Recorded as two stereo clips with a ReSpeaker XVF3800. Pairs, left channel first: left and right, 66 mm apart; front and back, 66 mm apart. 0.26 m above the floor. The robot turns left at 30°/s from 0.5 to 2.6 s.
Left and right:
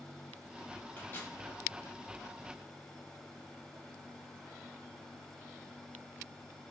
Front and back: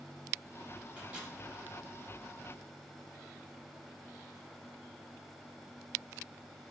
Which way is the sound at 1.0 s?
115° left.